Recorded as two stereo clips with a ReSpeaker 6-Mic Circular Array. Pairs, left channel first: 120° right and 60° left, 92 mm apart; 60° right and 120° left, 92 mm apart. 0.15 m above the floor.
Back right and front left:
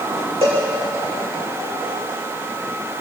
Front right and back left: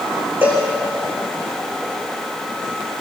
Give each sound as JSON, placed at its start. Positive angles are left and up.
{"t": 0.4, "sound": "a cowbell", "azimuth_deg": 50, "distance_m": 8.0}